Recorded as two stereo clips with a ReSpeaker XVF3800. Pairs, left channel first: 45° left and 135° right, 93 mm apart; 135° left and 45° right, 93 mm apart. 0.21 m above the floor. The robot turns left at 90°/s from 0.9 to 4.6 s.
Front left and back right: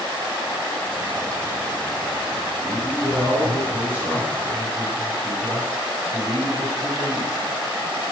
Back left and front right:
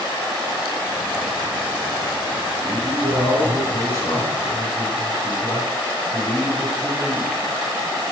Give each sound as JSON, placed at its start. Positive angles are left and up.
{"t": 2.6, "sound": "a man speaking", "azimuth_deg": -65, "distance_m": 1.6}